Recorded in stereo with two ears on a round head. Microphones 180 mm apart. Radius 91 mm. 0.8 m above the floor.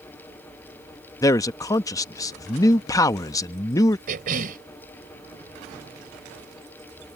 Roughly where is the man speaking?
Centre.